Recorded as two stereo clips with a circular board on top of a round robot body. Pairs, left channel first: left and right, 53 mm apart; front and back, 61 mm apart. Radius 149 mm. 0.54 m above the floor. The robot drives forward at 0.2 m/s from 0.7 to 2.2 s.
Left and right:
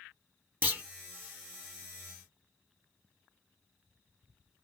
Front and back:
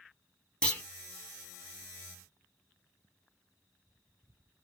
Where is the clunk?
65° right, 1.5 m.